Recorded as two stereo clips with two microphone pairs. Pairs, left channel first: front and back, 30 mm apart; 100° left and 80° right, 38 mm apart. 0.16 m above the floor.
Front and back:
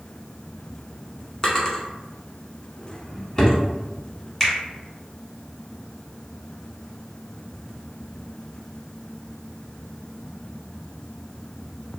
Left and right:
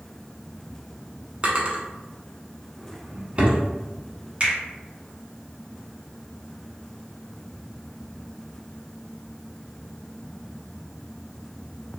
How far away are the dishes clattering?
No dishes clattering in this recording.